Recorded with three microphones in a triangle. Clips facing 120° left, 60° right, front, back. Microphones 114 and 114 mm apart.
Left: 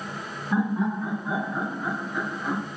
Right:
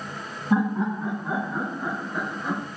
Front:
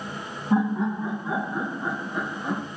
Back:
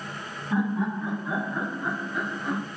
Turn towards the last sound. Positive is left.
turn(degrees=-15)